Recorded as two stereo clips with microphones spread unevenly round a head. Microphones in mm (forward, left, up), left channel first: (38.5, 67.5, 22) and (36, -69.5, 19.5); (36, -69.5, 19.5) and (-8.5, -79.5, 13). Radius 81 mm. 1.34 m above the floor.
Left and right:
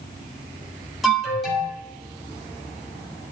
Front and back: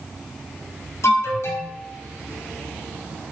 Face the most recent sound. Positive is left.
turn(degrees=0)